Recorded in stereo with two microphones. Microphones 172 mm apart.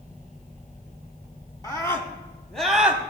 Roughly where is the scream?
Left.